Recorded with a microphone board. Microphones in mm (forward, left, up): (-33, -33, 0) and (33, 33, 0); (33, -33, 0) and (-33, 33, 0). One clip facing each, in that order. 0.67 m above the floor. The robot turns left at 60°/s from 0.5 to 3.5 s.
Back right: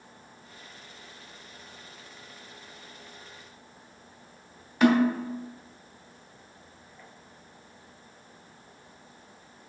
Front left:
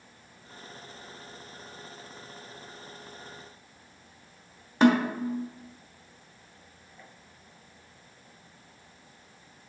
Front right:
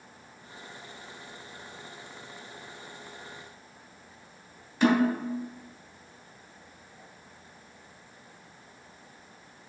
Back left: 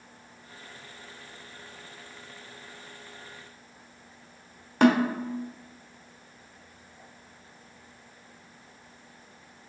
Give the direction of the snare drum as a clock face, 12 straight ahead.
9 o'clock.